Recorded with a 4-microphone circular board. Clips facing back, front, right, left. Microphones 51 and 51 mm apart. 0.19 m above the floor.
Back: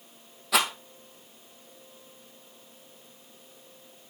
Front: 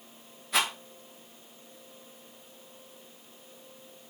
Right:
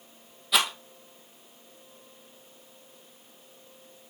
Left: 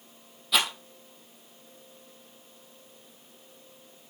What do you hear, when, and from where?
0.5 s a rattle: straight behind, 2.5 m